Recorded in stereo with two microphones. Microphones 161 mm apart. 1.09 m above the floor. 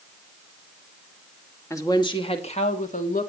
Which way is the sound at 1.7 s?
20° left (ahead or behind).